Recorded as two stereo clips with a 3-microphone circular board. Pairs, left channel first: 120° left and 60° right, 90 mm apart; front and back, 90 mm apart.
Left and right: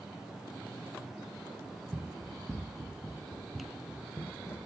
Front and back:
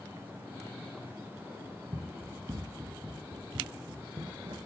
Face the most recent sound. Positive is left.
turn(degrees=180)